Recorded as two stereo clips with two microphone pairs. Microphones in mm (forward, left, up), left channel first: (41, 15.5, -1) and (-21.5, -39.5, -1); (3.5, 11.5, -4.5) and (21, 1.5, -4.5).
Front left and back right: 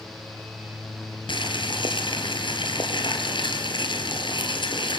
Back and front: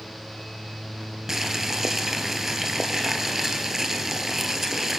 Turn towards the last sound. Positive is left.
turn(degrees=40)